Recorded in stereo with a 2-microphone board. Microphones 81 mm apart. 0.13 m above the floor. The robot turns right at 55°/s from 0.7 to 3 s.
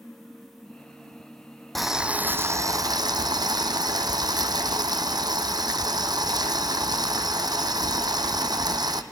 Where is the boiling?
Straight behind, 1.1 m; by 9.0 s 115° right, 1.1 m.